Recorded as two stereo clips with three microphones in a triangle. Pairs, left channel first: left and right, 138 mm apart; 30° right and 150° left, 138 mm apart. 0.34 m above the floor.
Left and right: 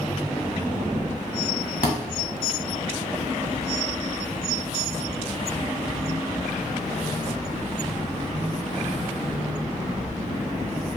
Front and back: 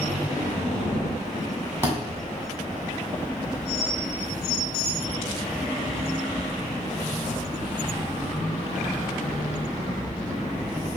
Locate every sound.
1.8 s a thud: 80° left, 0.9 m